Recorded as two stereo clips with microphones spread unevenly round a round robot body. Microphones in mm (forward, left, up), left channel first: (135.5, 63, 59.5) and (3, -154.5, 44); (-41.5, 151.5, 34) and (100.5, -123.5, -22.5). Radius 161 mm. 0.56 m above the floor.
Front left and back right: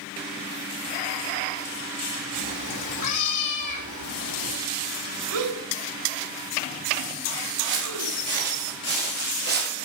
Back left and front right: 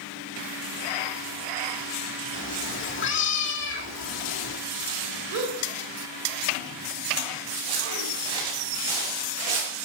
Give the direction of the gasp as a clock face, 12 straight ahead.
3 o'clock.